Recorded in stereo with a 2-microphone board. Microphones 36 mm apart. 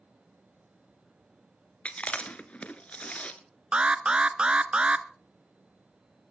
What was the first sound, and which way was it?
Chewing, 35° left (ahead or behind).